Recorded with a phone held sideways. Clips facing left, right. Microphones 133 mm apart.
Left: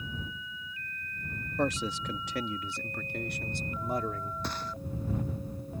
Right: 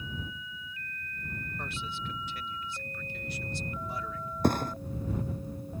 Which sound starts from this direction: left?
A man speaking, at 1.6 s.